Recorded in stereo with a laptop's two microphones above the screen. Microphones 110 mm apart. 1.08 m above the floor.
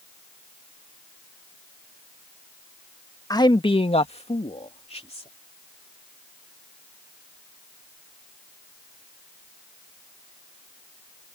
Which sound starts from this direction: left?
A man speaking, at 3.3 s.